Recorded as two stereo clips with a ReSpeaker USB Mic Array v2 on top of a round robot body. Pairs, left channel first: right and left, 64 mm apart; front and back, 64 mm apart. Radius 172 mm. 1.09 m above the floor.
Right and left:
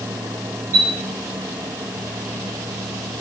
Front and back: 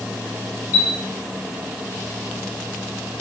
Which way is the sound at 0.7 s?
35° right.